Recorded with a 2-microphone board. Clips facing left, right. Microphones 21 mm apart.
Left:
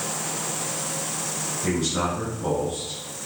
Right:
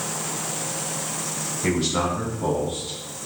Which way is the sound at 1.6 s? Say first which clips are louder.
Right 2 dB; 60° right (ahead or behind).